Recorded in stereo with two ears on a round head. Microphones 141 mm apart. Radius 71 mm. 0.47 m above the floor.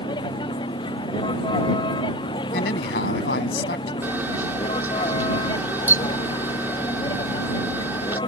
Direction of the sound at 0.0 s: 30° left (ahead or behind).